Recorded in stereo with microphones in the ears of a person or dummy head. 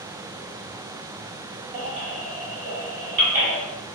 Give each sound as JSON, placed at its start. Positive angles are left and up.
{"t": 1.7, "sound": "a baby crying", "side_deg": -40, "distance_m": 2.0}